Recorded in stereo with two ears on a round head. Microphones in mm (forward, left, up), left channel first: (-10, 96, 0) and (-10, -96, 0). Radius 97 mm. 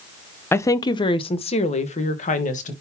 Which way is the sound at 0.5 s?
10° left (ahead or behind).